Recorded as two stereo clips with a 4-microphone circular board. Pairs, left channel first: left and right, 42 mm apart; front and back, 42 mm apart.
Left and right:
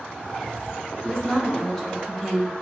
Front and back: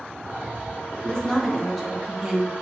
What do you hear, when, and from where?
1.0 s a woman speaking: 35° left, 1.1 m; by 2.5 s 160° left, 1.1 m